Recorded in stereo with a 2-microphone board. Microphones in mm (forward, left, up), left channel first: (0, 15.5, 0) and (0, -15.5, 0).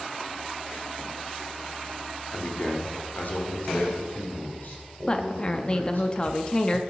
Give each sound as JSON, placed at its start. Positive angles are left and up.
{"t": 2.3, "sound": "a man speaking", "side_deg": 50, "distance_m": 1.7}
{"t": 5.1, "sound": "a woman speaking", "side_deg": 30, "distance_m": 0.6}